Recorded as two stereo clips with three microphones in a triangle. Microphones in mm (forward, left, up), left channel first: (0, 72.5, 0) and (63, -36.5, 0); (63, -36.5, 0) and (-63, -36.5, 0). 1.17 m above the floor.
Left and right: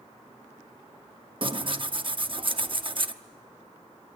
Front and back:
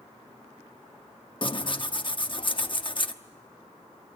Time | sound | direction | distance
1.4 | tearing paper | 30° right | 0.8 m